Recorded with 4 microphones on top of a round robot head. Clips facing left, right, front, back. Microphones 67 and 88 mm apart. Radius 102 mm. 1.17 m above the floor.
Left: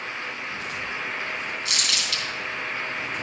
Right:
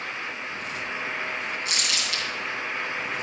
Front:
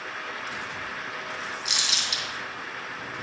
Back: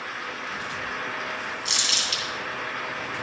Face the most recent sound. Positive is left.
turn(degrees=75)